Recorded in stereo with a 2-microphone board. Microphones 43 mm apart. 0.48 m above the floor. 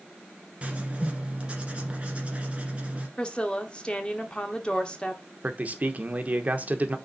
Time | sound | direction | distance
0.6 | writing | 30° right (ahead or behind) | 1.6 m
3.2 | a woman speaking | 20° left (ahead or behind) | 1.1 m
5.4 | a man speaking | 35° right (ahead or behind) | 0.8 m